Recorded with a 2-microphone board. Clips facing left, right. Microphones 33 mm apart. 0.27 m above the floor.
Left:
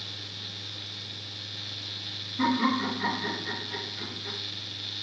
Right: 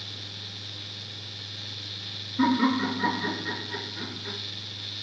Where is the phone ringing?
I don't hear a phone ringing.